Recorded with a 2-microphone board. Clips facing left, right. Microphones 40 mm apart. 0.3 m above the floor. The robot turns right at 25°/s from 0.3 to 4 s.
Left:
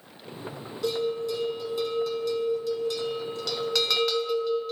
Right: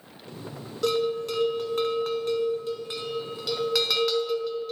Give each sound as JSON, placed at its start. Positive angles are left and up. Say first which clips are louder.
{"t": 0.8, "sound": "a bell", "louder": "right 2 dB", "azimuth_deg": -75, "distance_m": 0.9}